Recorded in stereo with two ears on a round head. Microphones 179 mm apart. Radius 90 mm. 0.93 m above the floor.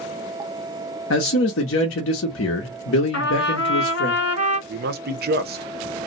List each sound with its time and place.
1.1 s a man speaking: 70° left (ahead or behind), 0.7 m
3.1 s a trumpet: 60° left (ahead or behind), 1.4 m
4.7 s a man speaking: 50° right (ahead or behind), 0.6 m